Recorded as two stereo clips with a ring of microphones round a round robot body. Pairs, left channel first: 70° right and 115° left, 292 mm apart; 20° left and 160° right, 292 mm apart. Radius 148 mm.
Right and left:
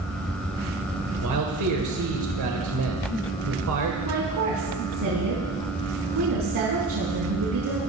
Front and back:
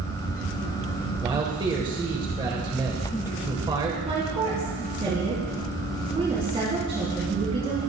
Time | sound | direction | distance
1.2 | a man speaking | 130° left | 2 m
4.0 | a woman speaking | 130° left | 4.5 m